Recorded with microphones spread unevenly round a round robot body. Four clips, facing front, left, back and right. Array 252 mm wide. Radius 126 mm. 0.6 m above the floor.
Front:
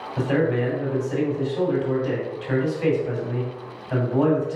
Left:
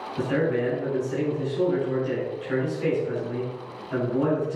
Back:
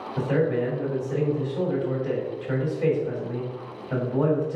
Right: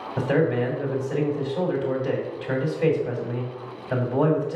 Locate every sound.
0.2 s a man speaking: 105° right, 2.5 m